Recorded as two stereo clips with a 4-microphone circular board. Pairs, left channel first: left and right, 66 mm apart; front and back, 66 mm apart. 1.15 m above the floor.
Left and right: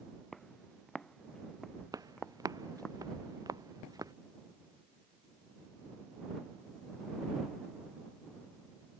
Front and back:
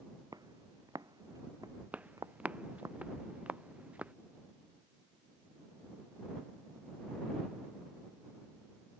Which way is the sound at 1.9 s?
110° right.